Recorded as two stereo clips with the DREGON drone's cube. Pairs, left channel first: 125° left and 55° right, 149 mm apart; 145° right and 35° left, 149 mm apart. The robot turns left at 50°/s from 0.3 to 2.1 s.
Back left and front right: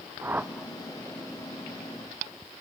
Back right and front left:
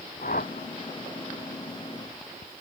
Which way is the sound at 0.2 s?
130° right.